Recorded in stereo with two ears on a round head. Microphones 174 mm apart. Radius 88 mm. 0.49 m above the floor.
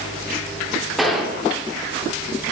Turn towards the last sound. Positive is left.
turn(degrees=0)  # may be behind; listen again after turning